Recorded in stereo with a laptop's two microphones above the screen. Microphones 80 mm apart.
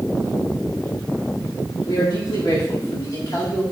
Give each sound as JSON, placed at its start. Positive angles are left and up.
{"t": 1.9, "sound": "a man speaking", "side_deg": 65, "distance_m": 2.5}